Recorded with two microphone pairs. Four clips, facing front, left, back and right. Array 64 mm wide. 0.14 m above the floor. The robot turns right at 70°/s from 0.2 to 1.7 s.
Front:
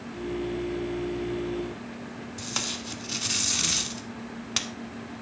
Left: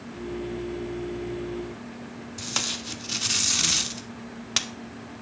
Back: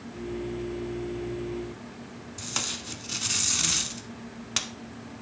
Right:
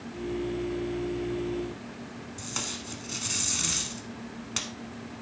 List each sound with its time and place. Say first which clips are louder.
2.4 s tape being pulled: left 5 dB, even; 95° left, 0.7 m